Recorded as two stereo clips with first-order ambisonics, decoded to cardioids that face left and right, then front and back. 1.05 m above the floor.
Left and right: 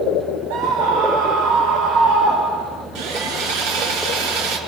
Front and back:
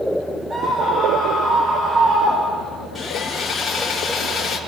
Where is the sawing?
85° right, 6 m.